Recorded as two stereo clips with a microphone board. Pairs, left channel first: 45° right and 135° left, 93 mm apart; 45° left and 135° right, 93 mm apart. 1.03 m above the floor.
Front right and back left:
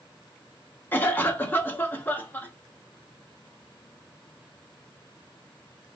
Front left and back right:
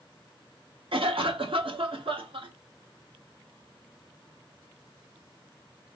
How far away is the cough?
About 1.2 m.